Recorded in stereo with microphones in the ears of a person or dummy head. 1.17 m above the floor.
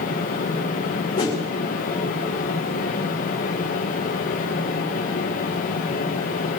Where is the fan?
45° left (ahead or behind), 1.3 m.